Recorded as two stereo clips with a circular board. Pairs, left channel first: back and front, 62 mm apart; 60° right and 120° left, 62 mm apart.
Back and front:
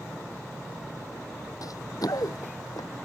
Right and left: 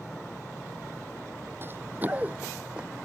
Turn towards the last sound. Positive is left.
turn(degrees=-170)